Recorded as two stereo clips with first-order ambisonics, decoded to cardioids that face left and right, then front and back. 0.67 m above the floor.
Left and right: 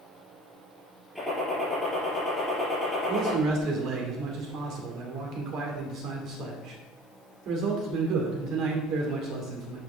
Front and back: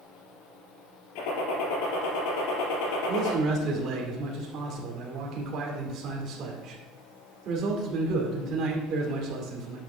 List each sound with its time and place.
1.1 s a gunshot: straight ahead, 4 m
3.1 s a man speaking: 130° right, 2 m